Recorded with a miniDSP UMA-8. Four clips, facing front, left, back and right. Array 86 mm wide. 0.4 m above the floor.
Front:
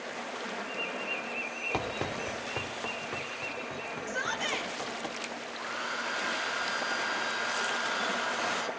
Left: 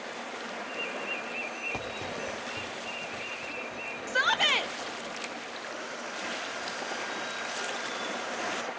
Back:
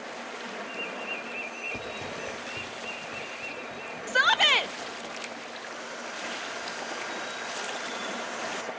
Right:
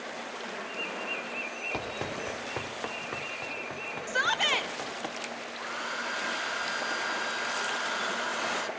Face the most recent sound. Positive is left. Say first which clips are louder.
# right 3 dB, front 3 dB
turn(degrees=-50)